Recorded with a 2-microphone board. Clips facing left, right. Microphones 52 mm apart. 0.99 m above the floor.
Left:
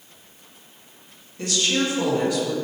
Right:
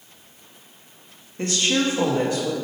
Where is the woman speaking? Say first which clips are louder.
Right 1 dB; 35° right (ahead or behind), 1.5 m.